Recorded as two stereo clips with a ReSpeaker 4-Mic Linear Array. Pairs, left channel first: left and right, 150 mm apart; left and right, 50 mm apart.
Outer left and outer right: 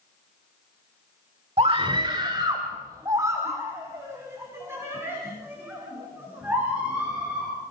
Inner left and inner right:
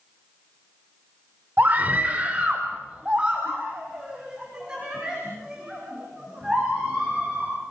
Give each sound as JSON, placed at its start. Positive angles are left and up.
{"t": 1.6, "sound": "a scream", "side_deg": -40, "distance_m": 1.2}